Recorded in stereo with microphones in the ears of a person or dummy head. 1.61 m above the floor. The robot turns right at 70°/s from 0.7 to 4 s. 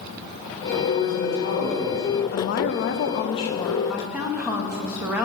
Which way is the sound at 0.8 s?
95° left.